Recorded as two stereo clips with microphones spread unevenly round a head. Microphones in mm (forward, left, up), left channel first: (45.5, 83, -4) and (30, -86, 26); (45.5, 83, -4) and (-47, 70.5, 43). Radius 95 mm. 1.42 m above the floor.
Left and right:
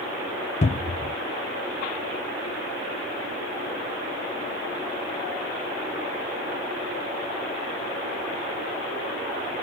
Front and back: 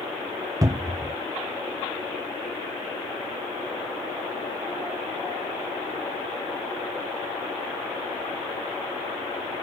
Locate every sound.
0.6 s a cupboard door: 115° left, 0.6 m